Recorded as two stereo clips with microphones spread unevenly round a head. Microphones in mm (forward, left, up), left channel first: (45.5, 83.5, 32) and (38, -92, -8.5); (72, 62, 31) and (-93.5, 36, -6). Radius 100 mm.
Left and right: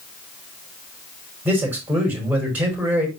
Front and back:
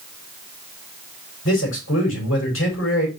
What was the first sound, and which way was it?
A man speaking, 10° right.